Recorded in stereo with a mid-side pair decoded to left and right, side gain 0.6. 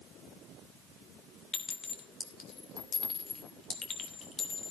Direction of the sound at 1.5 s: 35° left.